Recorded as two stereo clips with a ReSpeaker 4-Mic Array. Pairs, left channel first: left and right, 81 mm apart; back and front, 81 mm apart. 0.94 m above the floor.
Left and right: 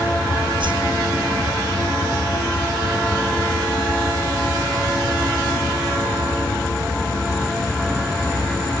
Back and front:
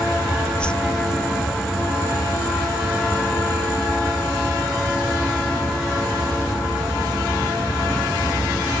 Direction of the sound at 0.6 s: 105° right.